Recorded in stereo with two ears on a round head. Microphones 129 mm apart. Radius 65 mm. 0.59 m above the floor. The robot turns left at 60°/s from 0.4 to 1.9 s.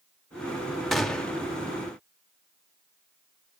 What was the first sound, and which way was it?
A gunshot, centre (ahead or behind).